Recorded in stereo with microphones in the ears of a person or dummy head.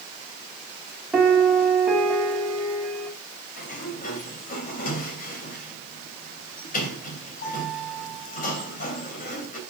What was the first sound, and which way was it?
A piano, 5° right (ahead or behind).